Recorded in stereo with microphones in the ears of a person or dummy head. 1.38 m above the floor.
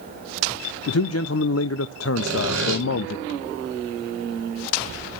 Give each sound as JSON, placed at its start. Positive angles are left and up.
{"t": 0.9, "sound": "a man speaking", "side_deg": 80, "distance_m": 0.5}
{"t": 2.2, "sound": "sawing", "side_deg": -80, "distance_m": 5.5}